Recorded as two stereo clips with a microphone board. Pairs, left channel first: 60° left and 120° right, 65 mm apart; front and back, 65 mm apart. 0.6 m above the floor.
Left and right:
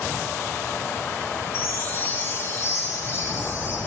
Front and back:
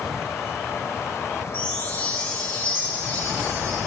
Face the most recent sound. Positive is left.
turn(degrees=50)